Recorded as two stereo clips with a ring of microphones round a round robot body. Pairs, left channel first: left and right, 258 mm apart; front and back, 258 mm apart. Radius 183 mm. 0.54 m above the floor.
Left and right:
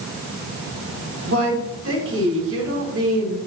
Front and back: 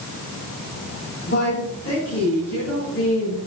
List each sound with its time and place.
1.2 s a woman speaking: 60° right, 6 m